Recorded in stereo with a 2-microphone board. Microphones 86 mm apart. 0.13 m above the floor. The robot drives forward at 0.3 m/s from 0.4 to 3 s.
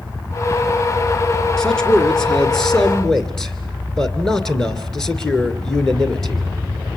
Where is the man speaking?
10° left (ahead or behind), 2.0 m.